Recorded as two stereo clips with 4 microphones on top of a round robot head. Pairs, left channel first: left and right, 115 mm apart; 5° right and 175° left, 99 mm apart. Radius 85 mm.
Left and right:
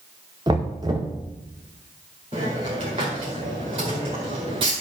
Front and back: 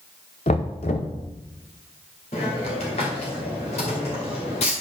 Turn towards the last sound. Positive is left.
turn(degrees=-35)